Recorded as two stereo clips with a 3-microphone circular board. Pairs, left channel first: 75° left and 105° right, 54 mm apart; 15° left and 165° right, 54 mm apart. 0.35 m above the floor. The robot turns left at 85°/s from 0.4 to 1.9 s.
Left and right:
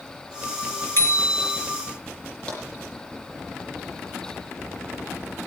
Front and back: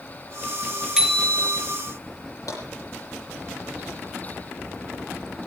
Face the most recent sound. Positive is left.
turn(degrees=5)